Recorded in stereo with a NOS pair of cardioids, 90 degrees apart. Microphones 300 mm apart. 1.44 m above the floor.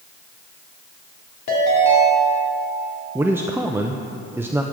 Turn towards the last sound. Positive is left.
turn(degrees=-10)